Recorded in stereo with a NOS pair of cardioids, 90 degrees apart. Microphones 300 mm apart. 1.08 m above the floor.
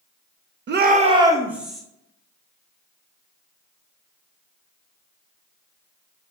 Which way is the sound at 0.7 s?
40° right.